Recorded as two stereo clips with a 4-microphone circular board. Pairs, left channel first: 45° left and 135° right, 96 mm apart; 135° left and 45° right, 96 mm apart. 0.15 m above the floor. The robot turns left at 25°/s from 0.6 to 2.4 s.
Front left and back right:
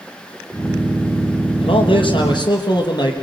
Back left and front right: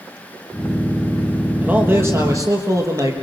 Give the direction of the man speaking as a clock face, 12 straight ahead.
11 o'clock.